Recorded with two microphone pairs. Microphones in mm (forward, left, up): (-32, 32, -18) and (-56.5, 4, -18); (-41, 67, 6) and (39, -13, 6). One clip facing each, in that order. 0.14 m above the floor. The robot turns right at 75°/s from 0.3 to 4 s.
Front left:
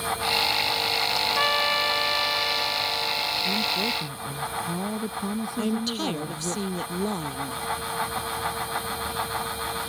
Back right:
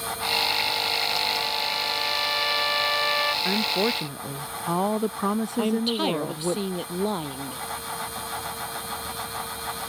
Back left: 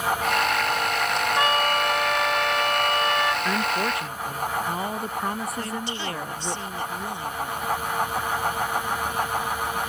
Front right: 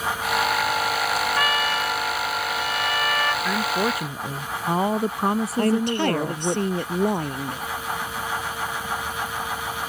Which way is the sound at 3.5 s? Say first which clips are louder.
Back right 2 dB, front right 1 dB; 145° right.